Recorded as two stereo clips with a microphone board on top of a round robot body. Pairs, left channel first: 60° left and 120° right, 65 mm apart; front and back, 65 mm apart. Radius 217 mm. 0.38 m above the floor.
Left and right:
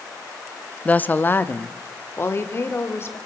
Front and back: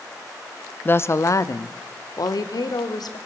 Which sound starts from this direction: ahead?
A woman speaking, at 0.8 s.